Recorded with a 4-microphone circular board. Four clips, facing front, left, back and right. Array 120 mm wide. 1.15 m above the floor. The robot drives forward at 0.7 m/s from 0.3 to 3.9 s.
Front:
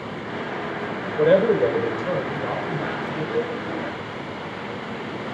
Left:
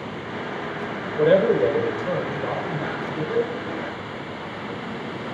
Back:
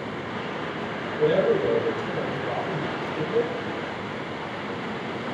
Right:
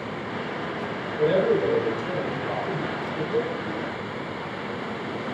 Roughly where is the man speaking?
Ahead left.